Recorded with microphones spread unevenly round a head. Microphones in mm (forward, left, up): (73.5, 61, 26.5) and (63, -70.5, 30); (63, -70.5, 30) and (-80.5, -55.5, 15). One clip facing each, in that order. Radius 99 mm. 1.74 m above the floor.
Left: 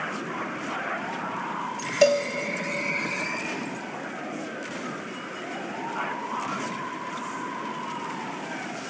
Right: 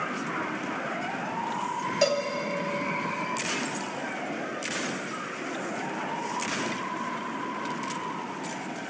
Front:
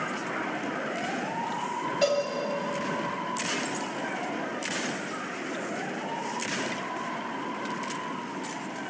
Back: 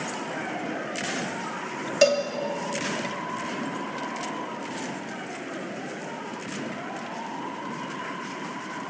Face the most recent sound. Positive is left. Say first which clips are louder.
# left 6 dB, back 5 dB
turn(degrees=145)